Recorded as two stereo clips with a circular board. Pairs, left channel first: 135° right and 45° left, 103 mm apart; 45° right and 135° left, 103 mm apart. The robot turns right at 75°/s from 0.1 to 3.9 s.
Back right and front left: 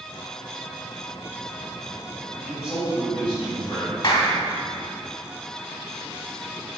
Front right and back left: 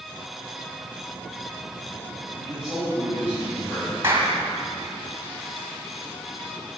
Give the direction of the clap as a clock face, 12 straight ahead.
5 o'clock.